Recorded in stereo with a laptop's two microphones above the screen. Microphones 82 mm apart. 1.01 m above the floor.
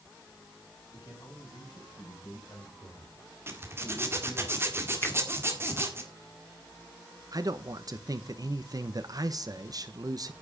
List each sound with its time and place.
0.9 s a man speaking: 60° left (ahead or behind), 7 m; by 4.5 s 50° left (ahead or behind), 3.5 m
3.5 s a zipper: 30° right (ahead or behind), 1.8 m
5.0 s a finger snap: 35° left (ahead or behind), 2 m
7.3 s a man speaking: 45° right (ahead or behind), 1.1 m